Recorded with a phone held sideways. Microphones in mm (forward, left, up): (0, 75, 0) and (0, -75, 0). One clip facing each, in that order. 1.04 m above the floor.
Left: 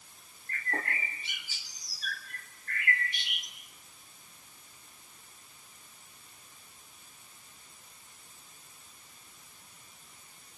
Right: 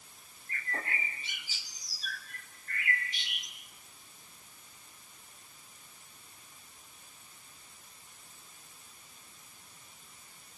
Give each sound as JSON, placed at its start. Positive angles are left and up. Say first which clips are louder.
{"t": 0.5, "sound": "a bird", "louder": "left 3 dB", "side_deg": 65, "distance_m": 4.0}